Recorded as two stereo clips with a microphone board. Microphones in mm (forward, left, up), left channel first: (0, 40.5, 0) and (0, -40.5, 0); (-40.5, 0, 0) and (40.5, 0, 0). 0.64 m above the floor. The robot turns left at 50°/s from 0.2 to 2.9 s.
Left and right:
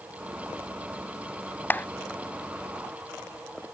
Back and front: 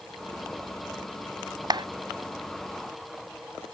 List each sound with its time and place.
1.7 s a clap: 25° left; by 1.9 s 20° left